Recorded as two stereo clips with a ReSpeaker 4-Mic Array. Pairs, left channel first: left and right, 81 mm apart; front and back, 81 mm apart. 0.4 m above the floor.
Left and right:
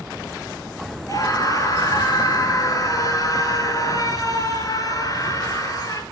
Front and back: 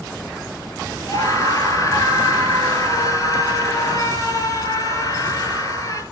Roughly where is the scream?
Ahead left.